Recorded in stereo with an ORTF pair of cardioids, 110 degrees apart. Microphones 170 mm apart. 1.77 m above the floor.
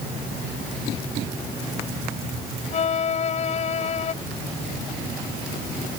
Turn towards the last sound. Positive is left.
turn(degrees=45)